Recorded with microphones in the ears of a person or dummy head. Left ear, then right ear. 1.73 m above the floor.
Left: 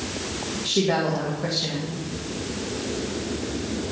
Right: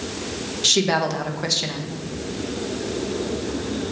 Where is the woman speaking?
75° right (ahead or behind), 2 m.